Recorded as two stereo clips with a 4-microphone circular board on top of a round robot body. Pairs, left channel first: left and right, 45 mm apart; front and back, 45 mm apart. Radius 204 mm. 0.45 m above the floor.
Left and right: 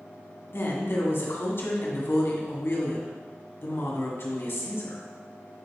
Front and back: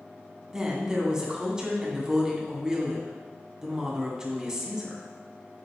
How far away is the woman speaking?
About 2 m.